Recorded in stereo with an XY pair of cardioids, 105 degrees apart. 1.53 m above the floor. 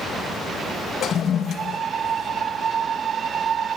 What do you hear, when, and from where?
1.0 s a toilet flushing: 60° left, 1.9 m